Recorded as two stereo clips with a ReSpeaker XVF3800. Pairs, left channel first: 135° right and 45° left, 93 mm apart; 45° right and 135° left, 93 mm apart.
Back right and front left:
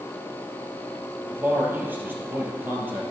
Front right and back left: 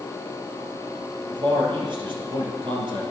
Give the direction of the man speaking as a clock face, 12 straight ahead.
8 o'clock.